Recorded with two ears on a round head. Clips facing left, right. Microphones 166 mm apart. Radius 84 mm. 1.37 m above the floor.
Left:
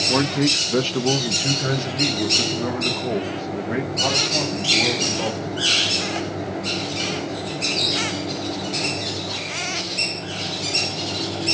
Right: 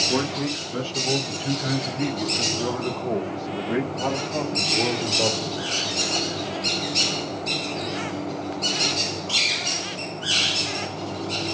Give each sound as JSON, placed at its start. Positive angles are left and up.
{"t": 0.1, "sound": "a man speaking", "side_deg": 80, "distance_m": 1.4}